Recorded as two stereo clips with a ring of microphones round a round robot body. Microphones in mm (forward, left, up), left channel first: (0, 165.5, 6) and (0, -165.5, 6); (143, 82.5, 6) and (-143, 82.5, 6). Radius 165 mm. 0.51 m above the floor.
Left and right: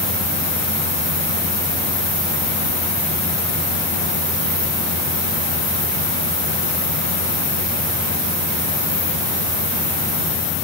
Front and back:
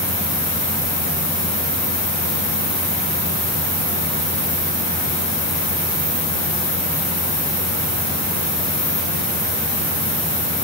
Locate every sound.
Only background noise.